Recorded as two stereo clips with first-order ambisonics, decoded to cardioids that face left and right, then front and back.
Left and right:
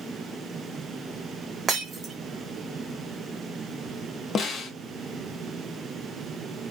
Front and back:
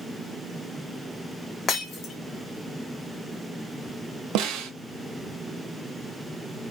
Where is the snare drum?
155° left, 0.7 m.